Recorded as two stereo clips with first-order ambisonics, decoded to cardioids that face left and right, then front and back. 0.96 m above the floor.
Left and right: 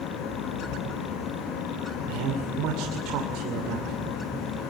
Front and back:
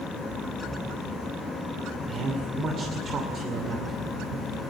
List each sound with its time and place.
2.1 s a man speaking: 115° right, 2.5 m